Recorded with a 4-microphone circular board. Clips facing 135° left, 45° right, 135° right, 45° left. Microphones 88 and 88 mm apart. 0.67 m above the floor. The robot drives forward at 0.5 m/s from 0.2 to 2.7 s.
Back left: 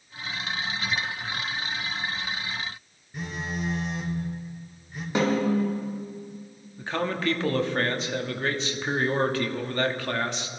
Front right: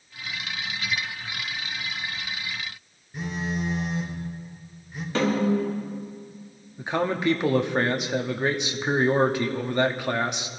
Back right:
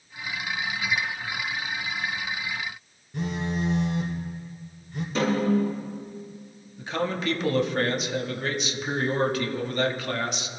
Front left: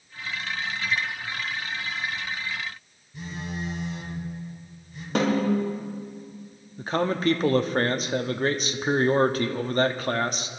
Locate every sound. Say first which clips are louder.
3.1 s a phone buzzing: front right 3 dB, back right 6 dB; 135° right, 3 m
5.2 s a snare drum: front right 1 dB, front left 1 dB; 65° left, 4 m
6.8 s a man speaking: front right 3 dB, front left 3 dB; 20° left, 0.9 m